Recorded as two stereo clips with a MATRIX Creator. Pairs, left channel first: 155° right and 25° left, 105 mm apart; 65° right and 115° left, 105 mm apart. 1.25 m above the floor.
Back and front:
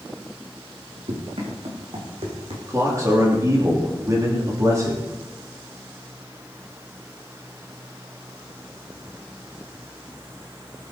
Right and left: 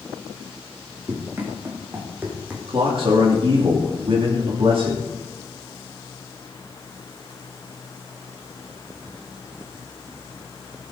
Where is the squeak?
I don't hear a squeak.